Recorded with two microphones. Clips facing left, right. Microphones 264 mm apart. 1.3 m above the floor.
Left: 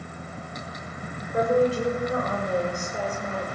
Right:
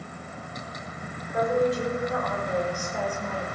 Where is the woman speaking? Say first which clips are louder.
Left 2 dB; 35° left (ahead or behind), 6 m; by 3.5 s 20° left (ahead or behind), 6 m.